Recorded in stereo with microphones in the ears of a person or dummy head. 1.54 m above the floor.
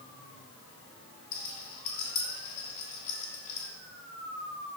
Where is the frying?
I don't hear frying.